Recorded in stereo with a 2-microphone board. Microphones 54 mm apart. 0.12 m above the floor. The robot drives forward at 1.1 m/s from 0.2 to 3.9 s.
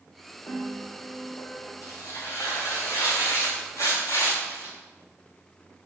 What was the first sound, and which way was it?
A piano, 75° left (ahead or behind).